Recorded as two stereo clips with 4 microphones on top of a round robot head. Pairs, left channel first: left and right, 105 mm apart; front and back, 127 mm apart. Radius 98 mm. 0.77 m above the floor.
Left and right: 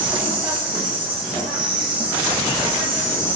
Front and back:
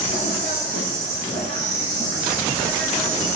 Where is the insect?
130° right, 5.5 m.